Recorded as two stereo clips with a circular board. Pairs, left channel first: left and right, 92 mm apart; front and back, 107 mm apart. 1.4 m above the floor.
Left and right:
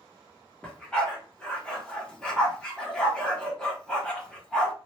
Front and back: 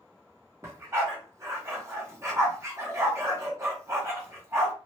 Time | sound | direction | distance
0.6 | a dog barking | 160° left | 1.0 m